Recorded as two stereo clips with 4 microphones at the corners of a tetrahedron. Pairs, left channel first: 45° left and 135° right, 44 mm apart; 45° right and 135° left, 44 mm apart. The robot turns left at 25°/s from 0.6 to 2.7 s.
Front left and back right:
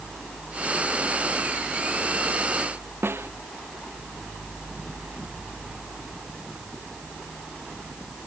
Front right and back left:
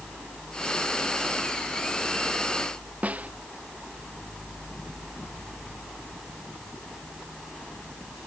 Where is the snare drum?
165° right.